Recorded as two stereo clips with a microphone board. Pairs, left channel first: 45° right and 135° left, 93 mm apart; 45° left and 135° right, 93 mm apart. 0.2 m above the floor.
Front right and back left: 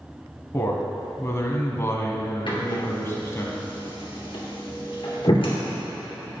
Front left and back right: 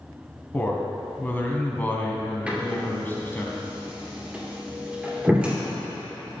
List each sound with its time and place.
0.5 s a man speaking: 10° right, 1.3 m
2.5 s a door slam: 55° right, 2.5 m